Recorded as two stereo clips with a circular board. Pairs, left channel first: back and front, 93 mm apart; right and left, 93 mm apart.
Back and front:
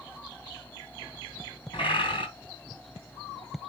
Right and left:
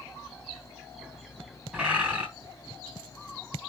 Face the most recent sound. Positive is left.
turn(degrees=165)